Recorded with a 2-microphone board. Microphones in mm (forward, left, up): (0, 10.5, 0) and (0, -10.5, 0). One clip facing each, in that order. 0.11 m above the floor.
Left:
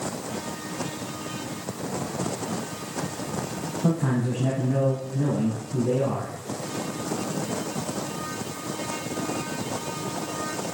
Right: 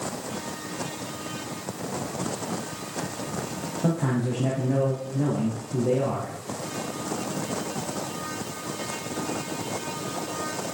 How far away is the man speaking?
About 3 m.